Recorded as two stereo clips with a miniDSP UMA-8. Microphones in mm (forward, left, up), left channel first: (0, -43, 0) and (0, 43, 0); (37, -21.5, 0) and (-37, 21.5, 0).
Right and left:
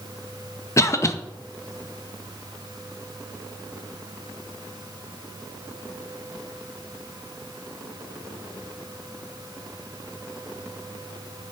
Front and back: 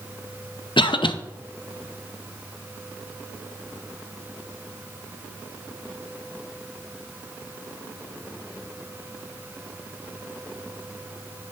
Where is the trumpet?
I don't hear a trumpet.